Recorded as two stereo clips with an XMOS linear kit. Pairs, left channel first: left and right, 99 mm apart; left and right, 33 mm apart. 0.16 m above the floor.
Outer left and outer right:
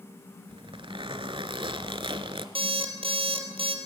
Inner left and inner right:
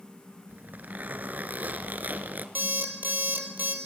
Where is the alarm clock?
70° right (ahead or behind), 2.5 m.